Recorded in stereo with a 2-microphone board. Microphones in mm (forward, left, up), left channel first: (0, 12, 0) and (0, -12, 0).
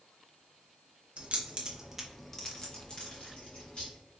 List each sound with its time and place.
1.2 s keys jangling: 60° right (ahead or behind), 0.7 m; by 3.9 s 55° left (ahead or behind), 1.4 m